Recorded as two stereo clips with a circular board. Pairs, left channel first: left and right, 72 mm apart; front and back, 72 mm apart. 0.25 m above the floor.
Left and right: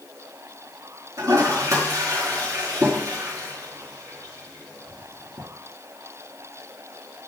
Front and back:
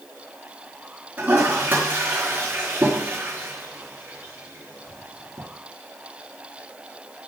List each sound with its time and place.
1.2 s a toilet flushing: 125° right, 4 m